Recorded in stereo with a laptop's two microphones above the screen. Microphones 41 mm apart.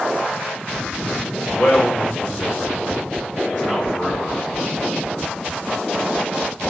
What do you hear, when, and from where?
1.5 s a man speaking: 55° left (ahead or behind), 1.2 m; by 4.4 s 20° left (ahead or behind), 1.8 m